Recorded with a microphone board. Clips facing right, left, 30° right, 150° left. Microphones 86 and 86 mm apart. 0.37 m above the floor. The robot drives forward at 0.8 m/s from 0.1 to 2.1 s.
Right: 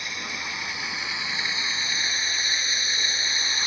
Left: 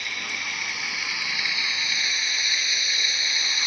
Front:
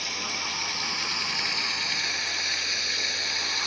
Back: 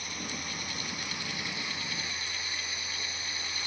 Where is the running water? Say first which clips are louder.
Even, front 5 dB; 20° right; by 3.7 s 30° right.